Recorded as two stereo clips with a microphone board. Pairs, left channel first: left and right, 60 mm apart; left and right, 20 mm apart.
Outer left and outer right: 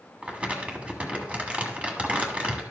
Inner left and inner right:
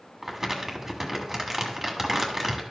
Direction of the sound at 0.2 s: 20° right (ahead or behind).